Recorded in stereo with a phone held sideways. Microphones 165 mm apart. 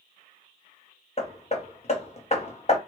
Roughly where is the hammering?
Left.